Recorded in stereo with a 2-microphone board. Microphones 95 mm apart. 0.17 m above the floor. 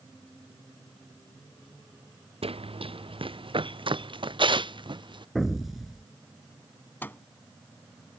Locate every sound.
2.4 s running footsteps: 75° right (ahead or behind); by 5.2 s 55° right (ahead or behind)
5.3 s an explosion: centre (ahead or behind)
7.0 s a microwave: 20° left (ahead or behind)